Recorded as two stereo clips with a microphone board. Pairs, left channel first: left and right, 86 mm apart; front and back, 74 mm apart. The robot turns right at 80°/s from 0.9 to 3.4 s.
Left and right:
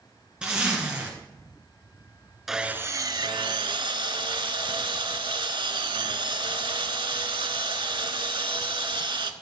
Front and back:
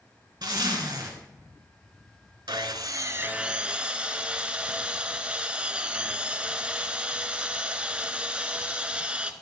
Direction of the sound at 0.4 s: 170° right.